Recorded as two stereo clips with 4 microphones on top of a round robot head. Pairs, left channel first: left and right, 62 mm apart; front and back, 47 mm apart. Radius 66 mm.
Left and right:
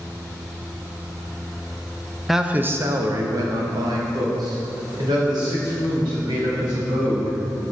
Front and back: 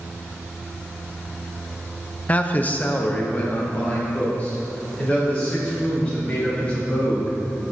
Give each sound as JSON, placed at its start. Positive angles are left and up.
{"t": 2.3, "sound": "a man speaking", "azimuth_deg": 0, "distance_m": 0.5}